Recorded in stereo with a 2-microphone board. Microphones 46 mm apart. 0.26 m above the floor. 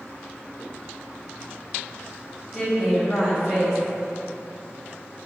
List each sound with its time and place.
2.5 s a woman speaking: 5° right (ahead or behind), 1.1 m